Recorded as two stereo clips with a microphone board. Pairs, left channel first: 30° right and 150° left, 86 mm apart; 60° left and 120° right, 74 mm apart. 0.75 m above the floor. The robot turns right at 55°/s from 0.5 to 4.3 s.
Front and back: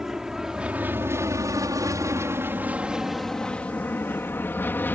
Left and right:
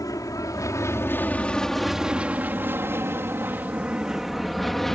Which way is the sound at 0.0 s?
70° left.